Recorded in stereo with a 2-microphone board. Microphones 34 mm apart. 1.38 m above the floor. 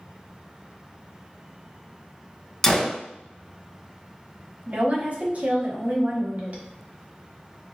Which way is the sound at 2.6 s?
15° left (ahead or behind).